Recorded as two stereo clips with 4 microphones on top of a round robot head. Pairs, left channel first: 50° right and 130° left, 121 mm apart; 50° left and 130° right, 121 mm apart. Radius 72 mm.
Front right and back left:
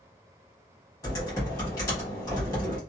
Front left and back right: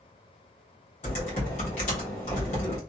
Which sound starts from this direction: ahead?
Typing on a keyboard, at 1.0 s.